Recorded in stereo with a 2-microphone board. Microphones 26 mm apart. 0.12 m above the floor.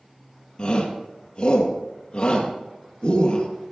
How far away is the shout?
About 2.5 m.